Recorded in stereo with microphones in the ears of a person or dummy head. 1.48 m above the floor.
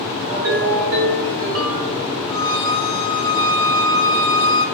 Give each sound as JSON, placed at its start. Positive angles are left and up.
{"t": 0.3, "sound": "a ringtone", "side_deg": -50, "distance_m": 0.6}
{"t": 2.3, "sound": "a violin", "side_deg": 25, "distance_m": 1.5}